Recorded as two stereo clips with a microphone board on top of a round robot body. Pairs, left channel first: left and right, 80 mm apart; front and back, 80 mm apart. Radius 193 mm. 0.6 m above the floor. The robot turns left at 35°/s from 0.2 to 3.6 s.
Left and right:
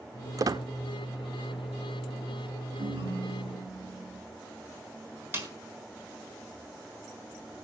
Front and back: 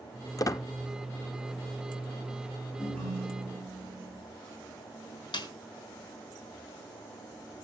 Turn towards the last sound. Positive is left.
turn(degrees=-25)